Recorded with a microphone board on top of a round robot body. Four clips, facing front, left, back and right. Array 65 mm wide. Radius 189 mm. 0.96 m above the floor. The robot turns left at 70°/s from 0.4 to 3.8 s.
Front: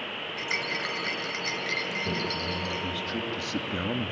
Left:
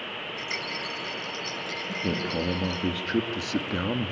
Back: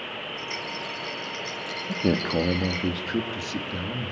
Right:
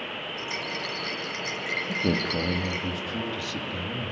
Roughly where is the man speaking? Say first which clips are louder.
Right 2 dB, back 6 dB; behind right.